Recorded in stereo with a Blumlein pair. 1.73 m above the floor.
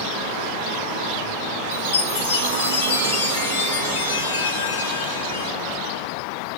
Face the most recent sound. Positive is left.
turn(degrees=60)